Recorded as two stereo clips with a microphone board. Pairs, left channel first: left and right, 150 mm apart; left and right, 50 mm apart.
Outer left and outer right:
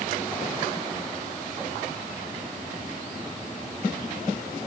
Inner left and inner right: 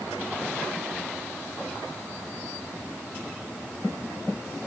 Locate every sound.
Only background noise.